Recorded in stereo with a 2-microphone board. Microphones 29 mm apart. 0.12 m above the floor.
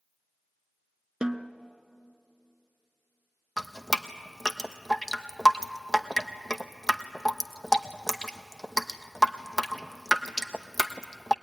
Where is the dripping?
10° left (ahead or behind), 0.9 m.